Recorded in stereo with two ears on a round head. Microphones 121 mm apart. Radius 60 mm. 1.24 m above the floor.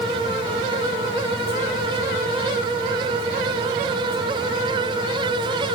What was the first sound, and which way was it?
Only background noise.